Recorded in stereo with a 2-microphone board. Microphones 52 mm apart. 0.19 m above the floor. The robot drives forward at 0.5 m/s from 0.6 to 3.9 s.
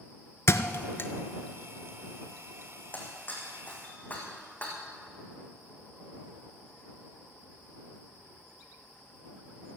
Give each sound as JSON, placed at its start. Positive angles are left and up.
{"t": 0.5, "sound": "a thud", "side_deg": 55, "distance_m": 0.8}
{"t": 2.9, "sound": "breaking glass", "side_deg": 35, "distance_m": 3.5}